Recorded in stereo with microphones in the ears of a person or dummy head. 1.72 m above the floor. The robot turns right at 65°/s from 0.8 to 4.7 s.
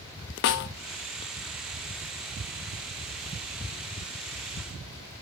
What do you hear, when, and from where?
0.4 s a snare drum: 50° left (ahead or behind), 0.6 m